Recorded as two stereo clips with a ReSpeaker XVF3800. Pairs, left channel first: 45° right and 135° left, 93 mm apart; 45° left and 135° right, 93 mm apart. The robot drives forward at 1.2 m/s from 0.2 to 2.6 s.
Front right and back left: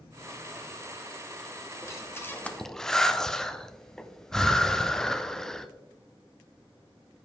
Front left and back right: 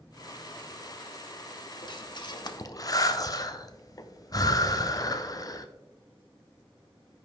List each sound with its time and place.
1.8 s breathing: 10° left, 1.3 m; by 5.7 s 35° left, 0.6 m